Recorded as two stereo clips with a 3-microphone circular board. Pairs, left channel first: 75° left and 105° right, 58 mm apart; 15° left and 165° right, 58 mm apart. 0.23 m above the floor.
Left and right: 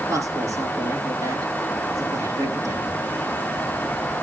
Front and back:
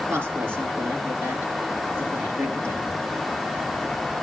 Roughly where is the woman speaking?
Right.